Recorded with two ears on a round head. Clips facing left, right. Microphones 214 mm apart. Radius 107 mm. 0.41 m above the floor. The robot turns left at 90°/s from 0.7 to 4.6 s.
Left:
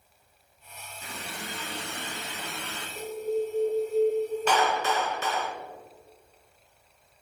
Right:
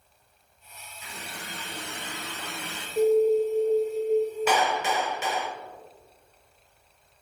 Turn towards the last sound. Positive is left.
turn(degrees=-15)  # may be behind; listen again after turning